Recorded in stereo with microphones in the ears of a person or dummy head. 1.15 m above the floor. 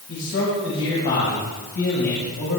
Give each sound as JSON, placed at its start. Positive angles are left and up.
{"t": 0.1, "sound": "a man speaking", "side_deg": 60, "distance_m": 8.0}